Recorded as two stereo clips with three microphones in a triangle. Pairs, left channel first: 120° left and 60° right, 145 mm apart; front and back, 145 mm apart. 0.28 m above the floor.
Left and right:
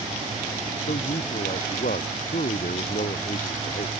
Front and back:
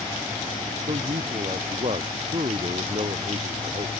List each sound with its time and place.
0.9 s a man speaking: 135° left